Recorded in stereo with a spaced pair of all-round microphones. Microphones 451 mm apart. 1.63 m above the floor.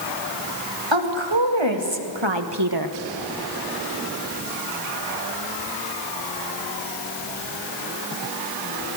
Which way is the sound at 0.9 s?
75° right (ahead or behind).